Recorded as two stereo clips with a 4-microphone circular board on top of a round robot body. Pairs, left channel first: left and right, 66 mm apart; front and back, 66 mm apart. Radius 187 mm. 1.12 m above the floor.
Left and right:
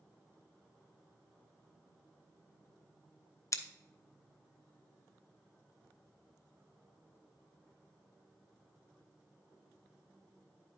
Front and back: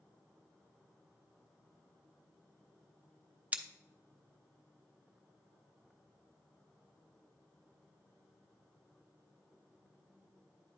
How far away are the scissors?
About 0.7 m.